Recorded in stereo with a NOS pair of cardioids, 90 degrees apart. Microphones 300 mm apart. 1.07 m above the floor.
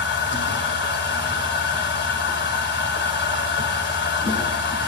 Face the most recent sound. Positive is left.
turn(degrees=40)